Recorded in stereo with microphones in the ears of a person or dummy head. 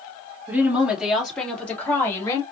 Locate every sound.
0.5 s a woman speaking: 5° right (ahead or behind), 2.5 m; by 2.4 s 25° left (ahead or behind), 3 m